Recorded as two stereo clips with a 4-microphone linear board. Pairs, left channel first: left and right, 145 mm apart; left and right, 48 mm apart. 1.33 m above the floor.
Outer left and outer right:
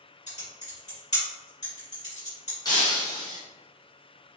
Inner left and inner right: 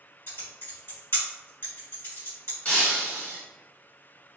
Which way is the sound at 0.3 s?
55° left (ahead or behind).